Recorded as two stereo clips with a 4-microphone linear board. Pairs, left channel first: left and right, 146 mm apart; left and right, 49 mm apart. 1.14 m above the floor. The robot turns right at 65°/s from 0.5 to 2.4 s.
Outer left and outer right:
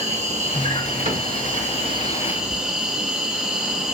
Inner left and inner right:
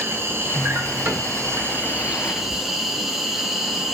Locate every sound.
0.0 s an insect: 130° right, 0.8 m; by 4.0 s 5° right, 0.8 m
1.1 s a cupboard door: 55° right (ahead or behind), 2 m; by 1.3 s 65° right (ahead or behind), 2 m